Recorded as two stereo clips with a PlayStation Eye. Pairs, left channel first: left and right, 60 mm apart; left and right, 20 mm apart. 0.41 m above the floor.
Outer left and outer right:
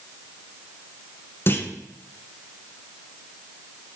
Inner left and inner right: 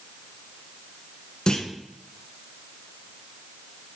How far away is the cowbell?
No cowbell in this recording.